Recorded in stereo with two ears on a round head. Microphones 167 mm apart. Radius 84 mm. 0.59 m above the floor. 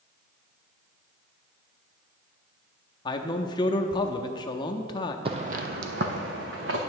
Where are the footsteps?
30° right (ahead or behind), 0.8 m; by 6.8 s 70° right (ahead or behind), 1.9 m.